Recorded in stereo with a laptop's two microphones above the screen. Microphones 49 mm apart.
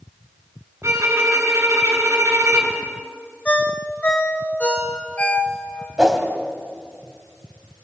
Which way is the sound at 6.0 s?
15° right (ahead or behind).